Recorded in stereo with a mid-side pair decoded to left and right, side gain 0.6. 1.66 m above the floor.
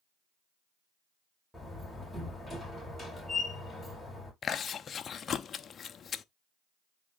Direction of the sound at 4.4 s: 40° left.